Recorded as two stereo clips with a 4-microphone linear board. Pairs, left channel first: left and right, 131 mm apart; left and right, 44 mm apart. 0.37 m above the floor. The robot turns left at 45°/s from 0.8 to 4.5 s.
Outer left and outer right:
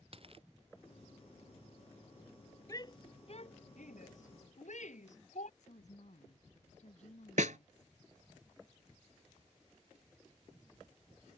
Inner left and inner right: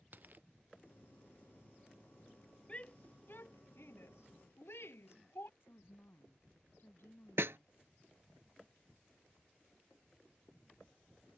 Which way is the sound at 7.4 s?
80° right.